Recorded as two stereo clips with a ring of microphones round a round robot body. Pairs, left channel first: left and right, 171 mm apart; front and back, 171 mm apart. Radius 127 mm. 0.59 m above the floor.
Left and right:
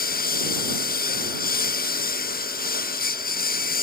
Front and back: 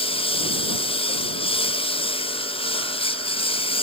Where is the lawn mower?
60° left.